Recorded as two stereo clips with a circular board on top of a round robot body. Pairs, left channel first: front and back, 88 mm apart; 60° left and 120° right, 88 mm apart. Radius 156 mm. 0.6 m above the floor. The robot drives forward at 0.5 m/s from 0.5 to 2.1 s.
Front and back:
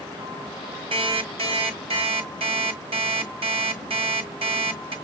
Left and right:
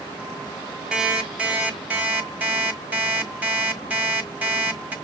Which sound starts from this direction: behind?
An alarm clock, at 0.9 s.